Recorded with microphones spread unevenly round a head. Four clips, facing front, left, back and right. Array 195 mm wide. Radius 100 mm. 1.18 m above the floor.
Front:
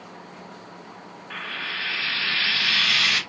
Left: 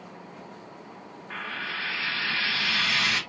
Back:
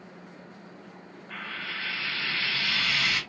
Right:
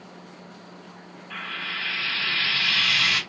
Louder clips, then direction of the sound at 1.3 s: Even, front 4 dB; 60° left.